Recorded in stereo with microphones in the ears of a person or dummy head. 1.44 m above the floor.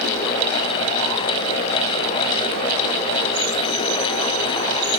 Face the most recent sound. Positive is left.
No sound to turn to.